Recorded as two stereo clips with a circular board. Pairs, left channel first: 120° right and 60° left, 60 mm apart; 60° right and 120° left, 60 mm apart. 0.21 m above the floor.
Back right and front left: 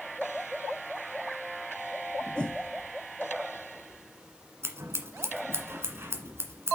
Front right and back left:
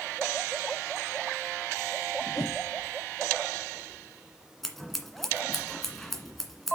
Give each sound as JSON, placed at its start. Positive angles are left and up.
{"t": 2.4, "sound": "a whoosh", "azimuth_deg": -45, "distance_m": 3.0}
{"t": 4.6, "sound": "scissors", "azimuth_deg": 25, "distance_m": 1.8}